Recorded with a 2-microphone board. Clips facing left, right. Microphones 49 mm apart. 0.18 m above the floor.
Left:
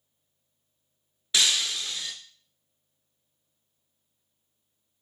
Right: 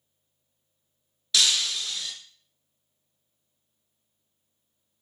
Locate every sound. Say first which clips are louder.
1.3 s breaking glass: right 1 dB; 25° left (ahead or behind), 0.5 m